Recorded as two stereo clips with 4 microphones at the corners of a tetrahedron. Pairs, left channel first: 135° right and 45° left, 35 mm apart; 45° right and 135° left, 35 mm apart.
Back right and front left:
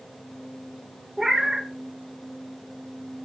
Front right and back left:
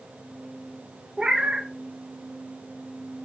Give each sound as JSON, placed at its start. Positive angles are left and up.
{"t": 1.2, "sound": "a cat meowing", "azimuth_deg": 115, "distance_m": 0.7}